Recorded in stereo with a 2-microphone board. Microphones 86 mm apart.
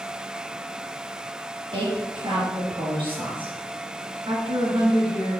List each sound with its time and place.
1.7 s a woman speaking: 80° right, 5 m
4.3 s a woman speaking: 75° right (ahead or behind), 3 m